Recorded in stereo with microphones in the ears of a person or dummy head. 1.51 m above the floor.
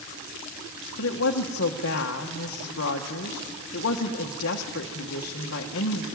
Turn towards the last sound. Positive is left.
turn(degrees=65)  # may be behind; listen again after turning